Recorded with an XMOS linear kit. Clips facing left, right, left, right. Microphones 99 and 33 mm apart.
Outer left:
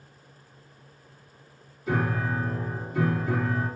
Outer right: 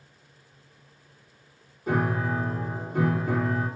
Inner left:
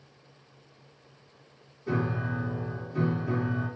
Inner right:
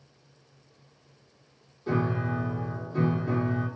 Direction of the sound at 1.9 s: 50° right (ahead or behind).